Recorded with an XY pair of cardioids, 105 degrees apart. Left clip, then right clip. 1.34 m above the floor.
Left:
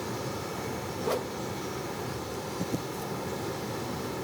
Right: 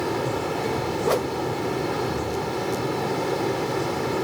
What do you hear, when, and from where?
0.0 s a fan: 65° right
1.0 s a whoosh: 45° right